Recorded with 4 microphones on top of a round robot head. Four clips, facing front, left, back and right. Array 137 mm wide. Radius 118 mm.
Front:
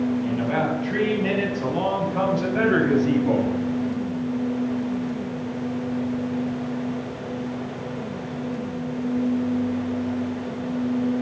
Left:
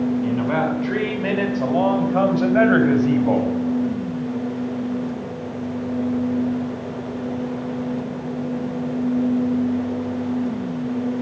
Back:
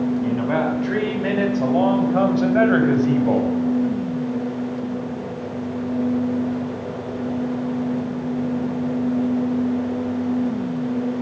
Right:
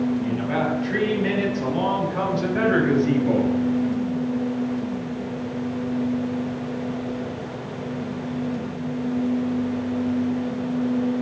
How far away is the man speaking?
About 5.5 m.